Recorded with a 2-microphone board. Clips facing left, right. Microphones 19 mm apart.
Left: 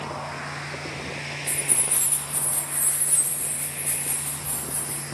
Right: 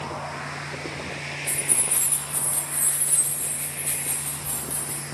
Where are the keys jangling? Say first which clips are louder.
Even; 15° left (ahead or behind), 1.8 m; by 5.0 s 85° right, 3.5 m.